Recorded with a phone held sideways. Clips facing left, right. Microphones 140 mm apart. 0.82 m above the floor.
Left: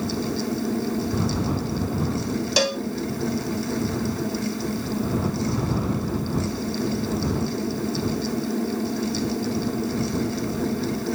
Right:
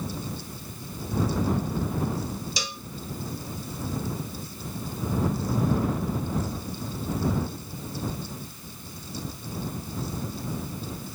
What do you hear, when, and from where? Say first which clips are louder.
0.0 s a fan: left 10 dB; 75° left (ahead or behind)
2.6 s a cowbell: left 15 dB; 80° left